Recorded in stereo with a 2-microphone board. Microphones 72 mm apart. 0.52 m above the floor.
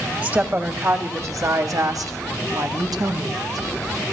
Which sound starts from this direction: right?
A woman speaking, at 0.2 s.